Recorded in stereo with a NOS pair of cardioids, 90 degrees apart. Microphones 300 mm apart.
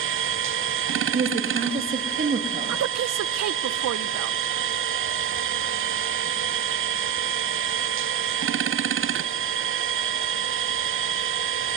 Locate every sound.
0.0 s a machine running: 45° right, 0.8 m
1.1 s a woman speaking: 30° right, 3.5 m
2.7 s a woman speaking: 60° right, 1.3 m